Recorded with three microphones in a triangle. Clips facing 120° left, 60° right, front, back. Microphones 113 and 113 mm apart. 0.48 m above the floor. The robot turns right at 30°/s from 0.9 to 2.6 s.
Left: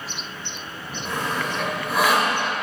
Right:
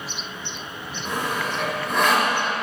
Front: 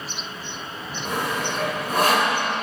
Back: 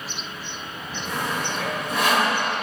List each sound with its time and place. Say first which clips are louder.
1.1 s sawing: even, front 2 dB; 10° left, 1.9 m; by 2.4 s 50° left, 1.9 m